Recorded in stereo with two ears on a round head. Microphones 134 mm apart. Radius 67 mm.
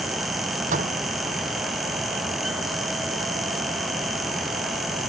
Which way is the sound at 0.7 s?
55° right (ahead or behind).